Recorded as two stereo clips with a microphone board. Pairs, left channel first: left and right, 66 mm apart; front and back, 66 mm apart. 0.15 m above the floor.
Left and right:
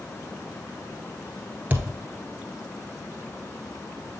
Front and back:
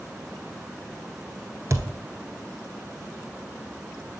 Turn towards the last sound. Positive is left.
turn(degrees=-145)